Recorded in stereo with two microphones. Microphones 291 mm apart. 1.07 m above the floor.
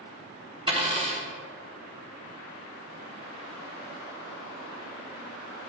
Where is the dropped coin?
20° right (ahead or behind), 1.0 m.